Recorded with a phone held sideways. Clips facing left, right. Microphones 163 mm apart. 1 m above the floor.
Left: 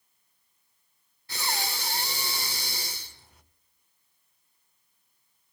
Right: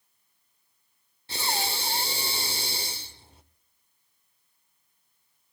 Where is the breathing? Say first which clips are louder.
Right 2 dB; 30° right (ahead or behind), 0.9 m.